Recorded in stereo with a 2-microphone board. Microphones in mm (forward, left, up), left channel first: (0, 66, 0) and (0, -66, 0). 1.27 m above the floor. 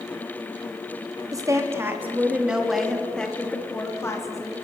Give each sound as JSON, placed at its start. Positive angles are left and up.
{"t": 1.3, "sound": "a woman speaking", "side_deg": -25, "distance_m": 3.0}